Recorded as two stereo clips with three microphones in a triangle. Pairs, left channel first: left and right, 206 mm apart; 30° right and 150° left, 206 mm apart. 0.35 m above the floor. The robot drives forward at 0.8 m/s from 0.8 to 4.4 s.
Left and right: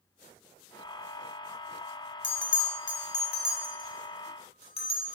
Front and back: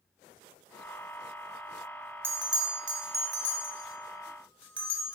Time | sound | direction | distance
2.2 | a bell | 70° left | 1.0 m